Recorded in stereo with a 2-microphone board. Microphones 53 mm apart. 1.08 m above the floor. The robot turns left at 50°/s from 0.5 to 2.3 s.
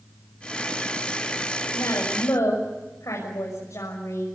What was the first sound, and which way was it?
A woman speaking, 75° left (ahead or behind).